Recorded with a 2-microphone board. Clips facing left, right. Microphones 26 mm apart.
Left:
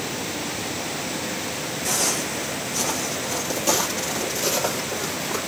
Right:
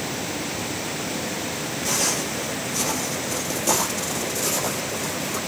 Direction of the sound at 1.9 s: 10° right (ahead or behind).